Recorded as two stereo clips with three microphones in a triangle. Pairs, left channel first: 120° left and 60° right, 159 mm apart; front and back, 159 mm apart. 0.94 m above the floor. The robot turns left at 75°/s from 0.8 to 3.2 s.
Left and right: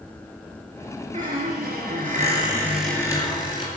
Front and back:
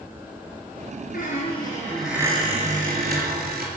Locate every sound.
1.1 s a squeak: 25° right, 4.5 m; by 3.7 s straight behind, 4.5 m